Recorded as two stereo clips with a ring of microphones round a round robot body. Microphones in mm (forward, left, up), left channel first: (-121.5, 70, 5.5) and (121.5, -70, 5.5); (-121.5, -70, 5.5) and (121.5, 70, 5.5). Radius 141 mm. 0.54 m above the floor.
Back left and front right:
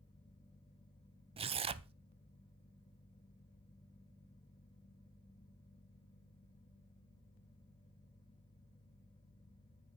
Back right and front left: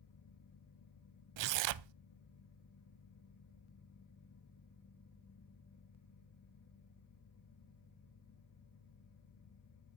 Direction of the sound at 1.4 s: 40° left.